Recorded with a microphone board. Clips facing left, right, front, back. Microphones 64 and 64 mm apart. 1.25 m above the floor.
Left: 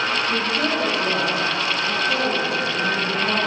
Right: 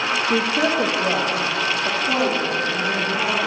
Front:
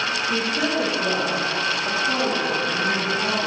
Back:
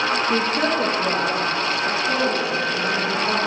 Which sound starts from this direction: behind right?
A woman speaking, at 0.3 s.